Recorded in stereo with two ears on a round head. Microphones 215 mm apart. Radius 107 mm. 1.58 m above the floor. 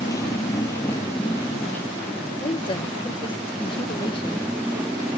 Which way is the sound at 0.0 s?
15° left (ahead or behind).